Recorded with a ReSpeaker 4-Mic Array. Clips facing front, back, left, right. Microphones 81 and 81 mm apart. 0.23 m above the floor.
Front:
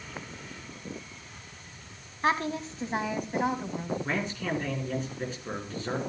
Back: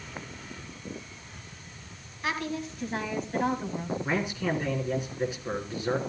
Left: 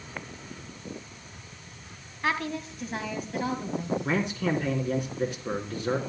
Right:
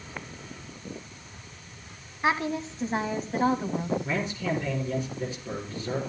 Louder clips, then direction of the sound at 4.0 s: Back 2 dB, left 2 dB; 100° left.